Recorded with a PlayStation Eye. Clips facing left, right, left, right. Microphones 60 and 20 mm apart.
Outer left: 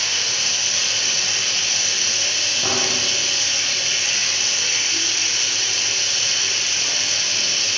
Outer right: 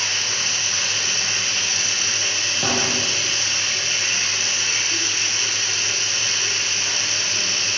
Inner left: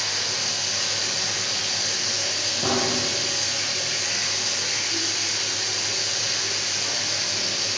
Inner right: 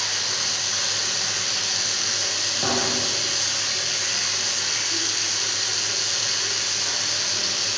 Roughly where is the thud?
Right.